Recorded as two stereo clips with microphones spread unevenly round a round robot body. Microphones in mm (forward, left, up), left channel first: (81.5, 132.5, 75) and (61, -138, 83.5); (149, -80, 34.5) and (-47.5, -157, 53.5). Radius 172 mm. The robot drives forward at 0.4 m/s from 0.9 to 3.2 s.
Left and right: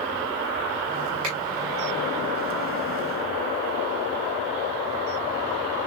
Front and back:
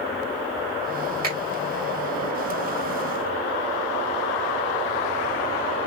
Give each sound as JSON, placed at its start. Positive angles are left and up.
{"t": 1.2, "sound": "a finger snap", "azimuth_deg": -115, "distance_m": 4.0}